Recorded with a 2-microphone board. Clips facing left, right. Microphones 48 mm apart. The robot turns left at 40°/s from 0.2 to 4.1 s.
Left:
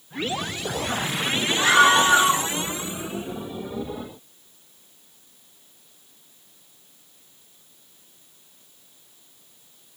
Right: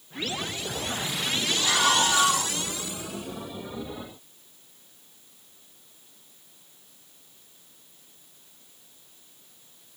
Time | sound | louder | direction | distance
1.6 | a scream | left 8 dB | 95° left | 3 m